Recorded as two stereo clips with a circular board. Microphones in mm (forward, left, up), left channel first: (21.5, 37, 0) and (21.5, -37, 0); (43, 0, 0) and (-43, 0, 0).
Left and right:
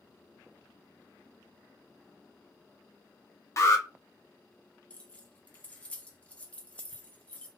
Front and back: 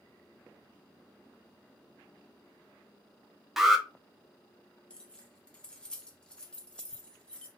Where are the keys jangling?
55° left, 0.9 m.